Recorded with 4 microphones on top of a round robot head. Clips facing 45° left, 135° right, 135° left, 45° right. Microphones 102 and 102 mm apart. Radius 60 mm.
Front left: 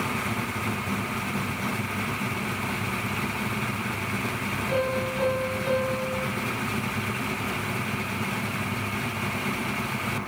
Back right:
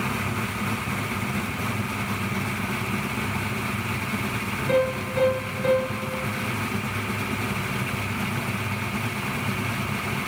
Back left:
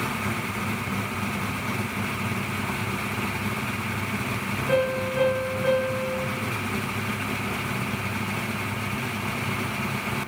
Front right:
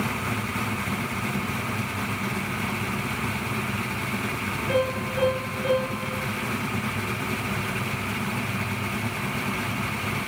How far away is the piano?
About 9 m.